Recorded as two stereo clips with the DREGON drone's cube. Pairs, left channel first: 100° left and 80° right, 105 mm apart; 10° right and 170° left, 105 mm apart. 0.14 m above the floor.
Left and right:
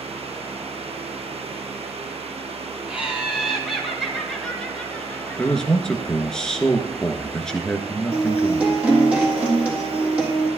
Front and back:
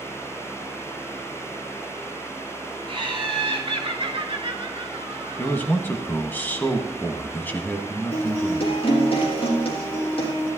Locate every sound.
2.9 s laughter: 160° right, 3 m; by 5.7 s 160° left, 1.9 m
5.4 s a man speaking: 25° left, 1.5 m
8.1 s a guitar: 5° right, 3.5 m